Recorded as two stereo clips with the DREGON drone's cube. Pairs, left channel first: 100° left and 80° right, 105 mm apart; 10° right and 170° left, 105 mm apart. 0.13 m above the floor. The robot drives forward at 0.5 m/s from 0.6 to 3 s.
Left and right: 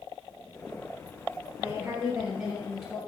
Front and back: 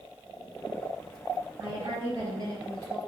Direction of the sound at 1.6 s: 150° right.